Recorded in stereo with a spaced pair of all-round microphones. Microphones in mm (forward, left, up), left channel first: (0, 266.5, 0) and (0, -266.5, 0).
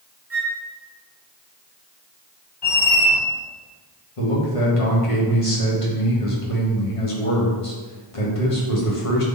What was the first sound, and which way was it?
A flute, 25° right (ahead or behind).